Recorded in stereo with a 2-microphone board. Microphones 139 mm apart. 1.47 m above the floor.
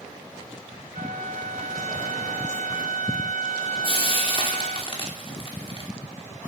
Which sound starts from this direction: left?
Frying, at 3.8 s.